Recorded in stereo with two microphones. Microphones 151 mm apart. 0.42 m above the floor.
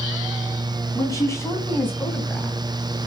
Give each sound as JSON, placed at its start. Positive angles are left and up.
{"t": 0.9, "sound": "a woman speaking", "side_deg": 20, "distance_m": 3.0}